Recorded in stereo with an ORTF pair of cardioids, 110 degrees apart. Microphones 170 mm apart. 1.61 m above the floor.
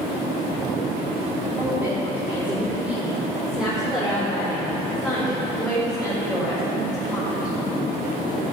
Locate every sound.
1.6 s a woman speaking: 15° right, 3.5 m; by 7.5 s 10° left, 6 m